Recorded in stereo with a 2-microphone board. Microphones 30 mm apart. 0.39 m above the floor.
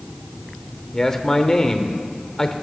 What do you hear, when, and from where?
0.9 s a man speaking: 15° left (ahead or behind), 0.8 m